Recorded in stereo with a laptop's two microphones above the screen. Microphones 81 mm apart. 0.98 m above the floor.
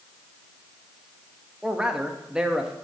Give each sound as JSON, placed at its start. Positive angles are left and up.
{"t": 1.6, "sound": "a man speaking", "side_deg": -10, "distance_m": 1.1}